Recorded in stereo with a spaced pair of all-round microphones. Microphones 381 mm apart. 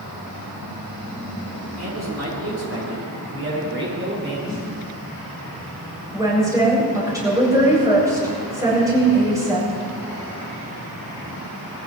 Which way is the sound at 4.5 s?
10° left (ahead or behind).